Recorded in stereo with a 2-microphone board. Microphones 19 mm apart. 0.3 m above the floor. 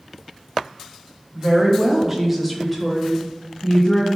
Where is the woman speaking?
35° right (ahead or behind), 1.3 m; by 4.1 s 45° left (ahead or behind), 1.3 m.